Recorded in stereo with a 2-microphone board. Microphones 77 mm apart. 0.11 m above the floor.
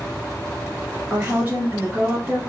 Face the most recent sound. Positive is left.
turn(degrees=-25)  # may be behind; listen again after turning